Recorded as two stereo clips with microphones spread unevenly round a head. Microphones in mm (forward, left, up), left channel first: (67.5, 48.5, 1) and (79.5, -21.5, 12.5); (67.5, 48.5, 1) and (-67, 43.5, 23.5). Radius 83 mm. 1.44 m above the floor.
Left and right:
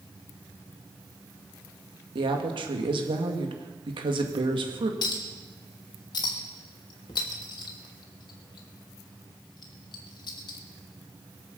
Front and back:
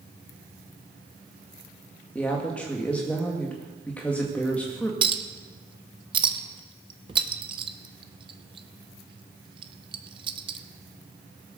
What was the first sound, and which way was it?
A woman speaking, 85° right.